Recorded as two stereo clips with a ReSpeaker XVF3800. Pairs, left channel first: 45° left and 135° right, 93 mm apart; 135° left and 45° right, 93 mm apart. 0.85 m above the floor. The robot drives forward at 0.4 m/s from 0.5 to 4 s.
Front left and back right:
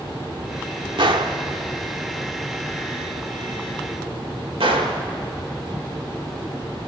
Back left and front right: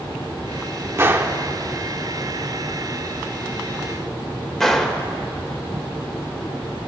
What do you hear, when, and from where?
1.0 s a gunshot: 105° right, 1.3 m; by 5.0 s 140° right, 2 m